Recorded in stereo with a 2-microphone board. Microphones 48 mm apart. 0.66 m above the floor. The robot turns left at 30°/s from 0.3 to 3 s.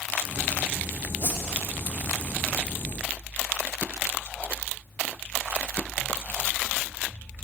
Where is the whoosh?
45° left (ahead or behind), 0.7 m; by 1.4 s 40° left (ahead or behind), 0.7 m.